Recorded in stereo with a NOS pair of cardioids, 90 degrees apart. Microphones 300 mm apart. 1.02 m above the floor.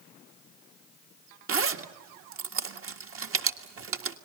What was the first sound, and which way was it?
A zipper, 50° right.